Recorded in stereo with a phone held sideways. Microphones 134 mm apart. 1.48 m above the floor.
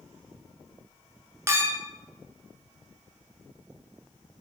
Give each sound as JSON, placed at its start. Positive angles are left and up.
{"t": 1.5, "sound": "a clink", "side_deg": -20, "distance_m": 1.1}